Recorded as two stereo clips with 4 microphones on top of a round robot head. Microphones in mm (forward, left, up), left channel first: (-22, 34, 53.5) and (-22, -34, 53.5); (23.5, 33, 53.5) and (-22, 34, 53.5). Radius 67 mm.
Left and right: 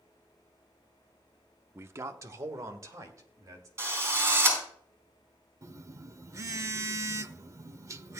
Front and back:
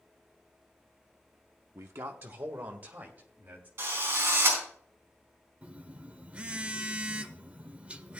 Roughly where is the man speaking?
Behind right.